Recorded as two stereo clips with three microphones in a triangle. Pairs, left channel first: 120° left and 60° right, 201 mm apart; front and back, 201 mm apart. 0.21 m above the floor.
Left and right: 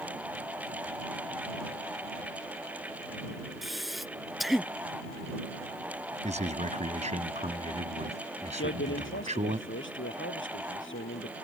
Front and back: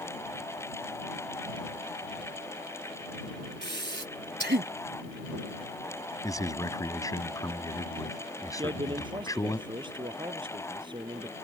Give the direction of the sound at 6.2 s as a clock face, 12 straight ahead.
2 o'clock.